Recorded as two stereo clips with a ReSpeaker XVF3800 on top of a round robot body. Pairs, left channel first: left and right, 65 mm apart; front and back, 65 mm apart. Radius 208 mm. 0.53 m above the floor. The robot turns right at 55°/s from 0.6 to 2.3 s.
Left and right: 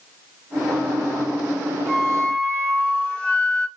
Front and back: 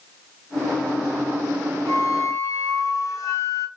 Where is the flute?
5° right, 1.6 m; by 3.7 s 20° left, 1.6 m.